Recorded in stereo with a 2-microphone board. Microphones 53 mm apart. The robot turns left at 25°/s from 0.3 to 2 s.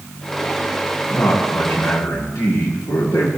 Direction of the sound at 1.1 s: 45° left (ahead or behind).